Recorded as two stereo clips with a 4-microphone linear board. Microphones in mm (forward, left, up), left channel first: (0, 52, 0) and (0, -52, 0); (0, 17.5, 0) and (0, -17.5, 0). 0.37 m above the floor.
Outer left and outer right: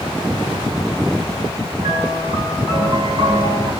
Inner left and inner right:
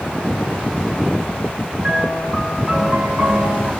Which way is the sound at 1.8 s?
40° right (ahead or behind).